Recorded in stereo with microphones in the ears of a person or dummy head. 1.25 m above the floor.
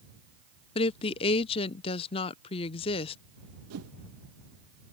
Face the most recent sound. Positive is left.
turn(degrees=-85)